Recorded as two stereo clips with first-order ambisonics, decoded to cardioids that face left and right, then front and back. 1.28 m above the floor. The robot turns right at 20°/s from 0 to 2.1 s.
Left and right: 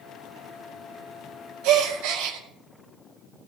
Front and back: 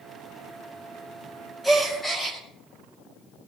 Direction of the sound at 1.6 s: 90° right.